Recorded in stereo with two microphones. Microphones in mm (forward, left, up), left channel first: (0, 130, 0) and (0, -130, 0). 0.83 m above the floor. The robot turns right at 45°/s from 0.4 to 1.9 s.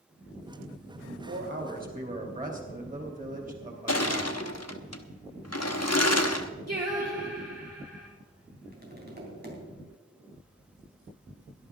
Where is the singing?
75° right (ahead or behind), 5 m.